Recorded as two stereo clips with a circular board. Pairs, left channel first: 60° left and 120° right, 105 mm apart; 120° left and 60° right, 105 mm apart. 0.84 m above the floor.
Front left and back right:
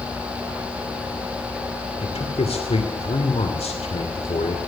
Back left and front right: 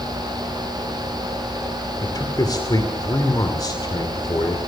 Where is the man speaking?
70° left, 2.5 m.